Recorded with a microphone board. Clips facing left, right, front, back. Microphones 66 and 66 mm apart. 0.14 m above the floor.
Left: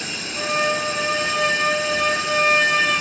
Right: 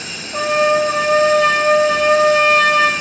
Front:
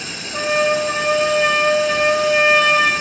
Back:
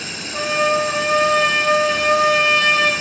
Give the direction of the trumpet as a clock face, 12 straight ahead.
3 o'clock.